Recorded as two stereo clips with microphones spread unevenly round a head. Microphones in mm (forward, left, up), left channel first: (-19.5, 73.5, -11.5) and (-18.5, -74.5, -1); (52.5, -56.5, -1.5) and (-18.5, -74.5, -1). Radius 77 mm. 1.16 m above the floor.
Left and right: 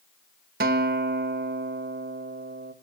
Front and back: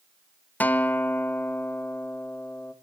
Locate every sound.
0.6 s a guitar: 55° right, 1.4 m